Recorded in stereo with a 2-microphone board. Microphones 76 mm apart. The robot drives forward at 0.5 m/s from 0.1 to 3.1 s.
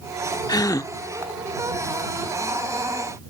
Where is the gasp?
60° left (ahead or behind); by 0.9 s 50° left (ahead or behind).